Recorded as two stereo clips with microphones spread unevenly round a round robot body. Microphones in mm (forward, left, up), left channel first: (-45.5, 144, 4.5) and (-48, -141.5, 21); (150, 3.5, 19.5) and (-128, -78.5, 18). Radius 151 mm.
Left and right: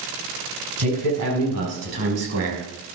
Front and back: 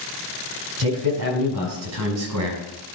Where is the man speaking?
125° right, 6 m; by 2.7 s 130° right, 4.5 m.